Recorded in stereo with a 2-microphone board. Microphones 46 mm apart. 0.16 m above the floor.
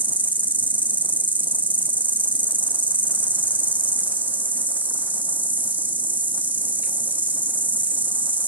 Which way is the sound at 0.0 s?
40° right (ahead or behind).